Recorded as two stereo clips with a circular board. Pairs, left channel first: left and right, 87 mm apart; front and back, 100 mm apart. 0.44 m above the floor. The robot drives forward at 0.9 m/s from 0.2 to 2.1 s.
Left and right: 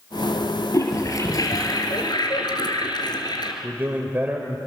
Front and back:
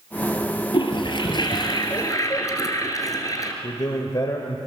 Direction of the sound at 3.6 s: 30° right.